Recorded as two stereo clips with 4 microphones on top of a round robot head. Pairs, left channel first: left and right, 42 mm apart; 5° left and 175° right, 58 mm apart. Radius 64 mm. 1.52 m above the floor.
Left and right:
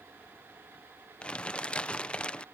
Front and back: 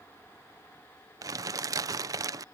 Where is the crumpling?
160° left.